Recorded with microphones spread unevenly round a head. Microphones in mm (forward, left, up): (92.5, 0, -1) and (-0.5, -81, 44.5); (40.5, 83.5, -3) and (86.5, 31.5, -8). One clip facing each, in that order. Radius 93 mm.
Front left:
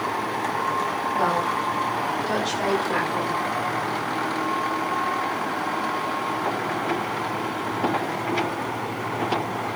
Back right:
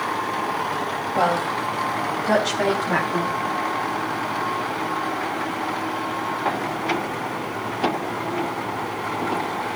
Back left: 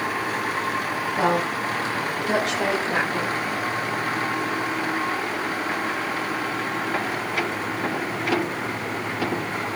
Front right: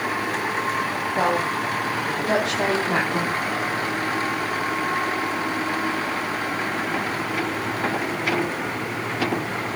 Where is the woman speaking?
120° right, 3 m; by 3.4 s 105° right, 4 m.